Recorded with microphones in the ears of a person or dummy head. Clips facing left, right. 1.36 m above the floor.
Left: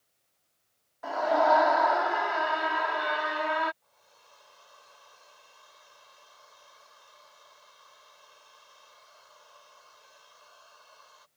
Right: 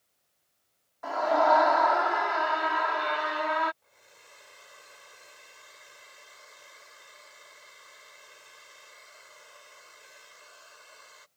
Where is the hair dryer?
35° right (ahead or behind).